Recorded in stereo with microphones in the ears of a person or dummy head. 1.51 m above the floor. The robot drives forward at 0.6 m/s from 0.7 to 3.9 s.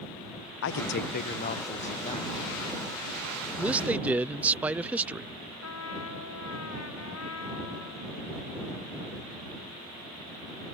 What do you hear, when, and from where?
0.6 s a man speaking: 60° left (ahead or behind); by 2.4 s 25° left (ahead or behind)
3.6 s a man speaking: 5° right (ahead or behind); by 5.3 s 10° right (ahead or behind)
5.6 s a trumpet: 85° left